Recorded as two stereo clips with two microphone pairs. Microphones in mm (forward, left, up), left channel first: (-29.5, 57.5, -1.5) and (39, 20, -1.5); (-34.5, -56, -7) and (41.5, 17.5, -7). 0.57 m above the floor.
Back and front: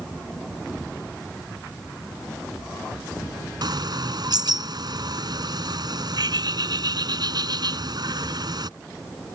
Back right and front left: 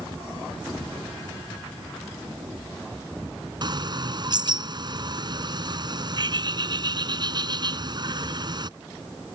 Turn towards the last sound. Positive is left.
turn(degrees=0)